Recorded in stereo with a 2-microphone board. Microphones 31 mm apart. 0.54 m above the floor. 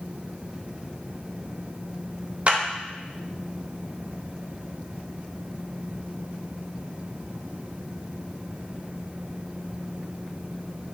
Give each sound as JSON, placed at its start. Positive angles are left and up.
{"t": 2.5, "sound": "a clap", "side_deg": -40, "distance_m": 0.6}